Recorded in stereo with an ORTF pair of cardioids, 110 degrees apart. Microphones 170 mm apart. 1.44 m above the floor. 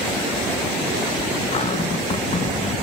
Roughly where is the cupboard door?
Ahead left.